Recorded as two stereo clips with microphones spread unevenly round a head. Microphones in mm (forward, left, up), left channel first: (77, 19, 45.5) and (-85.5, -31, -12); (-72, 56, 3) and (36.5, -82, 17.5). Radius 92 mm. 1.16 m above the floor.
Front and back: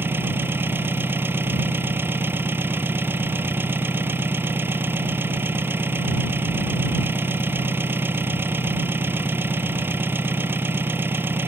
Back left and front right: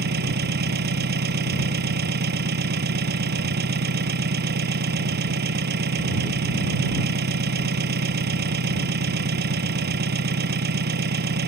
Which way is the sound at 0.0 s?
85° right.